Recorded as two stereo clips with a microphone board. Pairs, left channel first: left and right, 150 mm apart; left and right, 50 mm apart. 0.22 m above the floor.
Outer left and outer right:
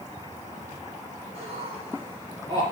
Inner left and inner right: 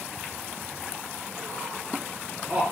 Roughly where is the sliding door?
I don't hear a sliding door.